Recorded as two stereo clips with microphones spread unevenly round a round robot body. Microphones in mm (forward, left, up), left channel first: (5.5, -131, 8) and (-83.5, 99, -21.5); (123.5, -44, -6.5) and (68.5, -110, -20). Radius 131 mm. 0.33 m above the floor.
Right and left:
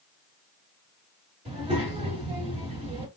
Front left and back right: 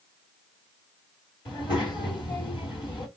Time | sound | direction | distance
1.4 | a child speaking | 55° left | 1.4 m